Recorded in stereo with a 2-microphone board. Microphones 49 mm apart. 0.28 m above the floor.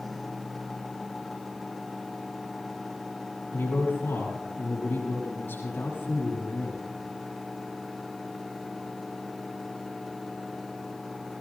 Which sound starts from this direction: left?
A man speaking, at 3.5 s.